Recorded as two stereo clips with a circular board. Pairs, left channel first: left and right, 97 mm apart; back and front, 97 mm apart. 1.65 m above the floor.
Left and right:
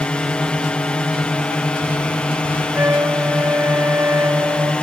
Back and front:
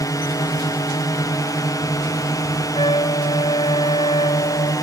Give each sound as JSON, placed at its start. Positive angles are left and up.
{"t": 0.0, "sound": "a drone", "azimuth_deg": 165}
{"t": 2.8, "sound": "a trumpet", "azimuth_deg": -155}